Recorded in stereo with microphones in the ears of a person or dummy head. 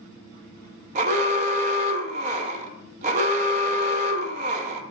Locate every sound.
0.9 s an alarm: 35° right (ahead or behind), 0.9 m